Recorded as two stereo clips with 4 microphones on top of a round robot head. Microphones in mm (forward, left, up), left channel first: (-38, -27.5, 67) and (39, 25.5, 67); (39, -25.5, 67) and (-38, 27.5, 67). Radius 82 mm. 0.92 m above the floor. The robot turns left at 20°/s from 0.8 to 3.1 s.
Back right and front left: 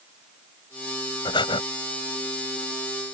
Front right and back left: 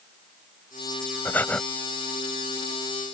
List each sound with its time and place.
1.2 s breathing: 105° right; by 1.6 s 110° right